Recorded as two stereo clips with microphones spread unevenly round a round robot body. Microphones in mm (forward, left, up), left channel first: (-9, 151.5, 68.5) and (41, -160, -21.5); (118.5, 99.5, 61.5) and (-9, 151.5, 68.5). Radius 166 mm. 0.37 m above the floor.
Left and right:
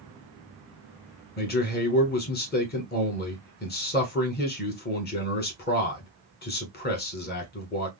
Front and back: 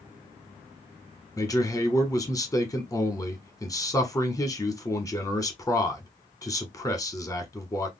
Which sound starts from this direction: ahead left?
A man speaking, at 1.4 s.